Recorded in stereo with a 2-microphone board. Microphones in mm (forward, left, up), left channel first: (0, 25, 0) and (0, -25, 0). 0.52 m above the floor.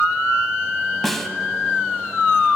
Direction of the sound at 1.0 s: 5° left (ahead or behind).